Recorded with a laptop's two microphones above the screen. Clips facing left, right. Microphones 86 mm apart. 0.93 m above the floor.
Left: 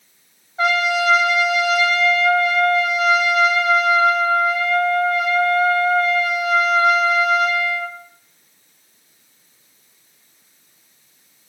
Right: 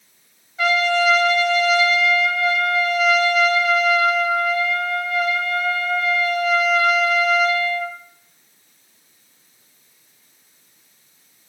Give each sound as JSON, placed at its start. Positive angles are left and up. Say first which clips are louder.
{"t": 0.6, "sound": "a trumpet", "louder": "even", "side_deg": 30, "distance_m": 0.6}